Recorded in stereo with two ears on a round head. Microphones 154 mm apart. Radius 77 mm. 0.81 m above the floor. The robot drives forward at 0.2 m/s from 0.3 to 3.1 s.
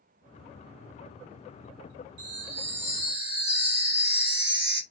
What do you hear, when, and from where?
2.2 s a chime: 70° right (ahead or behind), 1.5 m; by 4.8 s 65° right (ahead or behind), 1.5 m